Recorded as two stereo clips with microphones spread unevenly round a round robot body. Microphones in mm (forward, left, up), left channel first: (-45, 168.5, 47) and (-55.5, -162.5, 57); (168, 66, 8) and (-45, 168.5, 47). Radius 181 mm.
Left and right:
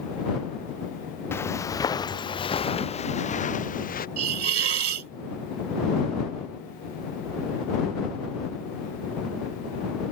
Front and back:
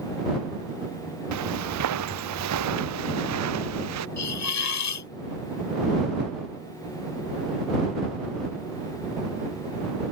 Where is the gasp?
I don't hear a gasp.